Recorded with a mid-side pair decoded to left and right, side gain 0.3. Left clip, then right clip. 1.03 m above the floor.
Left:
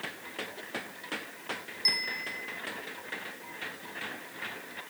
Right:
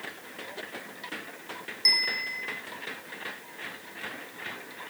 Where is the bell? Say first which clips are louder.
Right 5 dB; 45° right, 1.0 m.